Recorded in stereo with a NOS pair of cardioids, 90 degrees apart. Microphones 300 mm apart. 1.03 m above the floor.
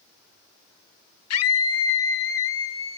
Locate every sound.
1.3 s a scream: 55° left, 0.8 m; by 3.0 s 45° left, 1.8 m